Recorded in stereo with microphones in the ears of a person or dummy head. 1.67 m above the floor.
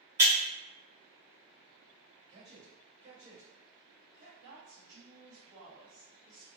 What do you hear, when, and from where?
0.2 s breaking glass: 10° right (ahead or behind), 1.0 m
2.3 s a man speaking: 35° right (ahead or behind), 1.1 m
4.4 s a woman speaking: 70° right (ahead or behind), 1.2 m